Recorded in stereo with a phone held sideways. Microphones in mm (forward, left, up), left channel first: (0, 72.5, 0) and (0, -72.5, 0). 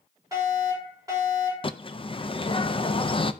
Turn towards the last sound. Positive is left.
turn(degrees=40)  # may be behind; listen again after turning